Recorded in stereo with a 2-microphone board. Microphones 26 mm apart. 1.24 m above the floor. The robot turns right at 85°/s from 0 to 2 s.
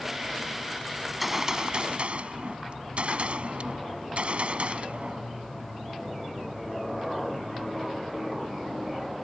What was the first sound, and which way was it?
A gunshot, 165° left.